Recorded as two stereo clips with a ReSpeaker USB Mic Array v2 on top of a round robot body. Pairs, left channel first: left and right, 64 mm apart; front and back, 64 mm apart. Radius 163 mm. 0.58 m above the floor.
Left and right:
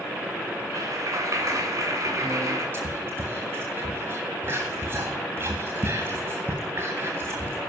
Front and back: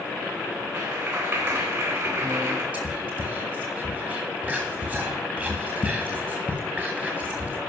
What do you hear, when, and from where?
0.7 s a clap: 135° right, 3.5 m
2.7 s whispering: 120° right, 1.6 m